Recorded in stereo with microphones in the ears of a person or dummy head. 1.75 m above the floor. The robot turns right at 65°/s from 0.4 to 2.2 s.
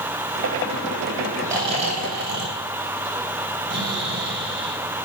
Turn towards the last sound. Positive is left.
turn(degrees=-120)